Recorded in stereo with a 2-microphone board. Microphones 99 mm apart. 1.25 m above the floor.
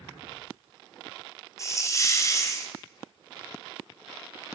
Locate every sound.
1.6 s a hiss: 30° left (ahead or behind), 1.6 m